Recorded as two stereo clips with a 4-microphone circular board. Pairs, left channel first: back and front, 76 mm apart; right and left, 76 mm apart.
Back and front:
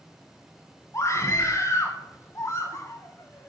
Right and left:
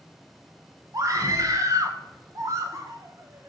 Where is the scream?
130° left, 1.3 m.